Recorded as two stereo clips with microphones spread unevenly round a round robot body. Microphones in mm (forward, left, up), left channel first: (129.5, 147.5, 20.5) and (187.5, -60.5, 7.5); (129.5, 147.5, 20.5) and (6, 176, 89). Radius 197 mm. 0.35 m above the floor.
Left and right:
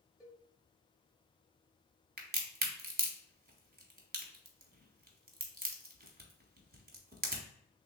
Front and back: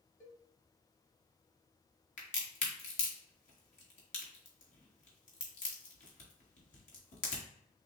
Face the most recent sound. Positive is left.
turn(degrees=-25)